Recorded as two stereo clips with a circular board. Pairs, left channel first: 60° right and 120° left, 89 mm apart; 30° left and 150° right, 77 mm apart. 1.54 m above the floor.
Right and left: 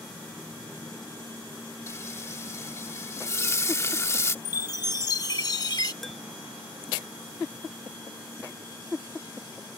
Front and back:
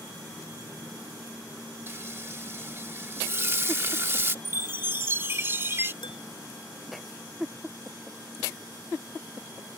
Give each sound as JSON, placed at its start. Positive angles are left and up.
{"t": 1.9, "sound": "frying", "azimuth_deg": -105}
{"t": 4.5, "sound": "a chime", "azimuth_deg": -95}
{"t": 6.0, "sound": "dishes clattering", "azimuth_deg": 30}